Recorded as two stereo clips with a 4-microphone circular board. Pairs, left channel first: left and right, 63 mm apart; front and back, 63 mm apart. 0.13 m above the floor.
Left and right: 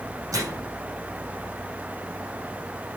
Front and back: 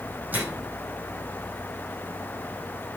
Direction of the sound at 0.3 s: 115° right.